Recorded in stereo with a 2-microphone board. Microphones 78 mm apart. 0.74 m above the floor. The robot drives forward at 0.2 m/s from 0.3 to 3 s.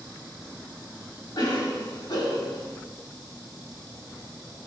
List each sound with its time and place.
1.4 s a cough: 65° left (ahead or behind), 2.5 m